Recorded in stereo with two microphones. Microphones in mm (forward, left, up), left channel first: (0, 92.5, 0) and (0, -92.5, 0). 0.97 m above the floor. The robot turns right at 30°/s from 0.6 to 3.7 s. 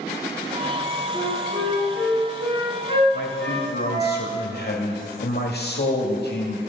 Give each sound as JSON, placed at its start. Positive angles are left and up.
{"t": 1.1, "sound": "a flute", "azimuth_deg": 155, "distance_m": 5.5}
{"t": 3.1, "sound": "a man speaking", "side_deg": 70, "distance_m": 2.0}